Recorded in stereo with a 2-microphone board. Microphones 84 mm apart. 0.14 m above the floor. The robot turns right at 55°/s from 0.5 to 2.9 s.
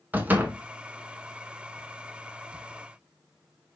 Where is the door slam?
20° right (ahead or behind), 0.8 m.